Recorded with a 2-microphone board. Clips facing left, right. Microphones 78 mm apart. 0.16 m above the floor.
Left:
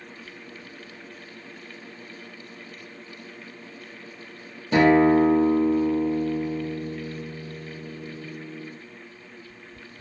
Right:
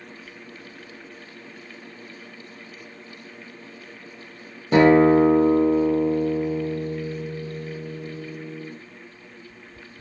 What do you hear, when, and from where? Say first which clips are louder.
4.7 s a guitar: right 3 dB; 35° right (ahead or behind), 0.7 m